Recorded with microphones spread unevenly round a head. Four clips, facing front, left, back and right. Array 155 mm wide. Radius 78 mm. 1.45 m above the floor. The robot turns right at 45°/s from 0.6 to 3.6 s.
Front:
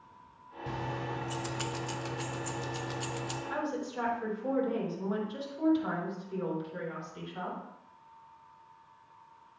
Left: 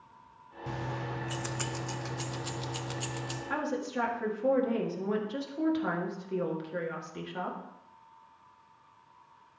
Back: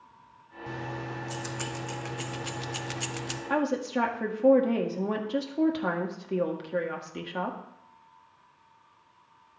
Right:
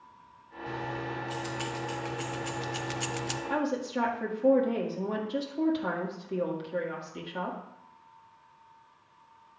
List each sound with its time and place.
0.7 s keys jangling: 90° left, 0.6 m; by 3.4 s 145° right, 0.6 m
3.5 s a woman speaking: straight behind, 1.7 m; by 7.6 s 175° right, 1.7 m